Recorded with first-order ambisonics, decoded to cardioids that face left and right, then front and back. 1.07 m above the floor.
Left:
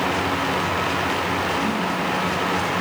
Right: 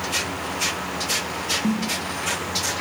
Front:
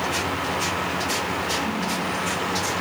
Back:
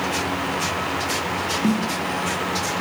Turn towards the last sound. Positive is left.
turn(degrees=-170)